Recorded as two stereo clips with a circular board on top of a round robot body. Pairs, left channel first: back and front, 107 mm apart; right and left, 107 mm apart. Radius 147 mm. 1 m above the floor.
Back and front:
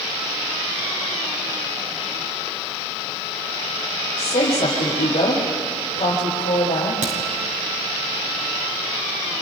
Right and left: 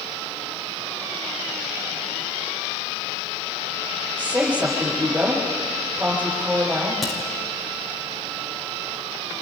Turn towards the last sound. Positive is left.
turn(degrees=0)